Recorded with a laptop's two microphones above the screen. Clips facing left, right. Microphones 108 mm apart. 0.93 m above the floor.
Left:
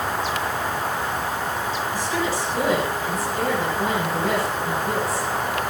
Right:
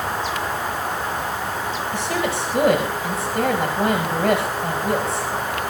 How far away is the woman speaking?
About 6 m.